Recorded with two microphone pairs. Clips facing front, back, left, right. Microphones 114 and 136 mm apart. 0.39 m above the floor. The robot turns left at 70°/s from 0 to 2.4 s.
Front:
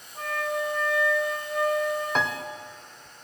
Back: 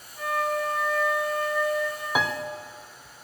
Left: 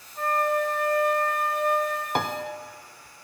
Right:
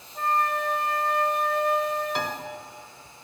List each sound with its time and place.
0.1 s a flute: 40° right, 4.5 m; by 2.0 s 175° right, 4.5 m
2.1 s a piano: 100° left, 0.6 m; by 2.4 s 85° left, 0.6 m